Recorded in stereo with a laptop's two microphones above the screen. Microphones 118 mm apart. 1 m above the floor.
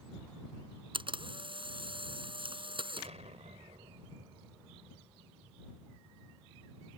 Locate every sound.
0.9 s a camera shutter: 50° right (ahead or behind)
3.0 s an explosion: 80° right